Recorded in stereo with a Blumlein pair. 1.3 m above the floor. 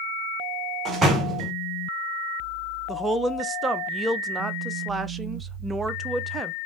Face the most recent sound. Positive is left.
turn(degrees=-15)